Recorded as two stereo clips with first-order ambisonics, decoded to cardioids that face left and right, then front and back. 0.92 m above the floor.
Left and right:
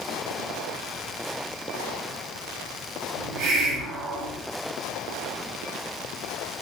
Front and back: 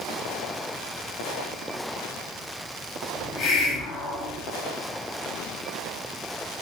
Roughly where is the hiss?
Ahead right.